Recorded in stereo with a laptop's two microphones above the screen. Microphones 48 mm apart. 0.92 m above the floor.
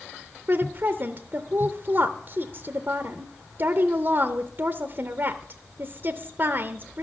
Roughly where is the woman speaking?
Right.